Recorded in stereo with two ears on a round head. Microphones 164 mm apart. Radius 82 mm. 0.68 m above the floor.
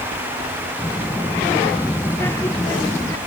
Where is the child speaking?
15° left (ahead or behind).